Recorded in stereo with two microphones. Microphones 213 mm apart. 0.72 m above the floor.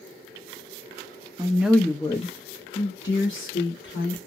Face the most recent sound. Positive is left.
turn(degrees=60)  # may be behind; listen again after turning